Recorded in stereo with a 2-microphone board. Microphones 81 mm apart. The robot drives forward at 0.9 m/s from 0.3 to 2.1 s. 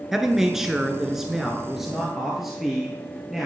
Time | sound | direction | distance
0.1 | a man speaking | 5° right (ahead or behind) | 1.1 m